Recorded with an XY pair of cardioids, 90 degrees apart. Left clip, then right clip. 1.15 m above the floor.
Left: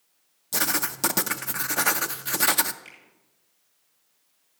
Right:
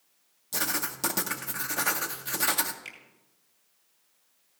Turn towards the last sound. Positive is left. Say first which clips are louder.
# right 3 dB
turn(degrees=-50)